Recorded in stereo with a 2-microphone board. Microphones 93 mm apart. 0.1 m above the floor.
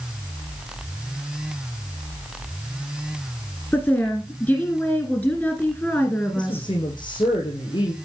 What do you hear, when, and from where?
3.7 s a woman speaking: 20° left (ahead or behind), 1.6 m
6.3 s a woman speaking: 55° left (ahead or behind), 4.5 m